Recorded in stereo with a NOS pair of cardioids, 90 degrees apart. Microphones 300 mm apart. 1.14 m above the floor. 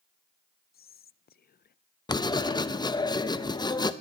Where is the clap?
No clap in this recording.